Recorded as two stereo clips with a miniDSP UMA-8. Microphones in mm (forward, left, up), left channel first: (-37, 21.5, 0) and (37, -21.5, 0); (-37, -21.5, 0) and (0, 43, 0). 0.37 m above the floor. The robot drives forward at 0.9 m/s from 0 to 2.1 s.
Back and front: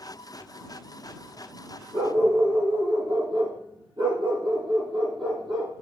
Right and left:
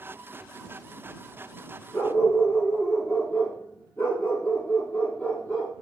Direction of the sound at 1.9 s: 60° right.